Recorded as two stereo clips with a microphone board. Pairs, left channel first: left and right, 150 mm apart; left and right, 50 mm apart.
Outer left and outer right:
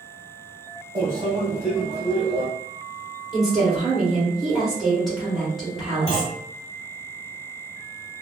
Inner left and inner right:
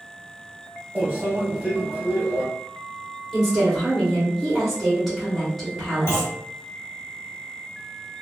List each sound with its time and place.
0.9 s a microwave: 30° right (ahead or behind), 1.4 m
3.3 s a woman speaking: centre (ahead or behind), 1.9 m
6.1 s a clunk: 50° left (ahead or behind), 1.4 m